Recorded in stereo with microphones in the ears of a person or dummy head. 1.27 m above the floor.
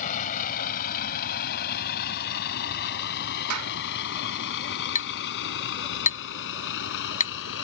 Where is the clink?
40° left (ahead or behind).